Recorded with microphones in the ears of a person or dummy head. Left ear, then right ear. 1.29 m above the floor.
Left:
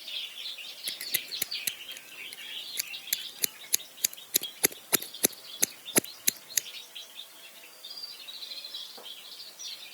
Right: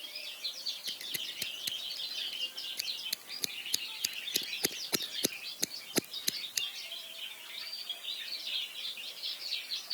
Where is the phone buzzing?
No phone buzzing in this recording.